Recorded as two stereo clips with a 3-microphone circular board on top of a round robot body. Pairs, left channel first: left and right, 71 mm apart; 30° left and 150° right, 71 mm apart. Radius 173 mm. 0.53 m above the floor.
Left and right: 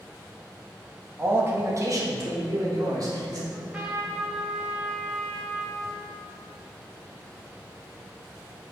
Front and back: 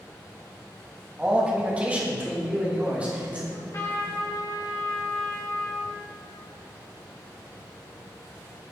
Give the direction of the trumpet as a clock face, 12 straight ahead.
1 o'clock.